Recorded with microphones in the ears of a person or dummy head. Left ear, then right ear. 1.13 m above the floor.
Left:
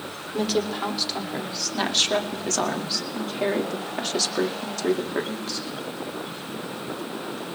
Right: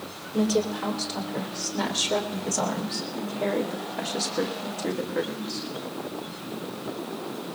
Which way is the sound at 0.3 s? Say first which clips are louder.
Even; 50° left (ahead or behind).